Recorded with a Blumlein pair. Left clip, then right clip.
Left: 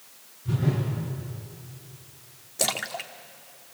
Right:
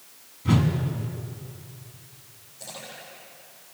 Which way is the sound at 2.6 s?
40° left.